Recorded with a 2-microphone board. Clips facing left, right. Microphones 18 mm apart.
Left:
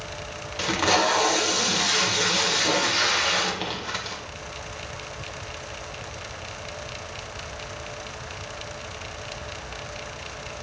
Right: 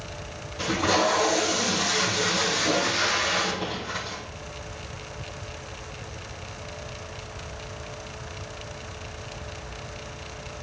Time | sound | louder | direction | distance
0.6 | tape being pulled | left 1 dB | 40° left (ahead or behind) | 1.6 m